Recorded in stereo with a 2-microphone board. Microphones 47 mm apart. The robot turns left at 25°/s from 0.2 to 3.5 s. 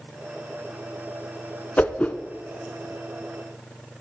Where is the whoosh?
35° left (ahead or behind), 0.8 m; by 2.1 s 40° left (ahead or behind), 0.8 m.